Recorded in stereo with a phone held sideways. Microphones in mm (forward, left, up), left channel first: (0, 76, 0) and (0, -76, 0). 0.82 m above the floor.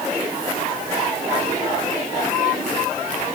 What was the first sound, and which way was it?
Only background noise.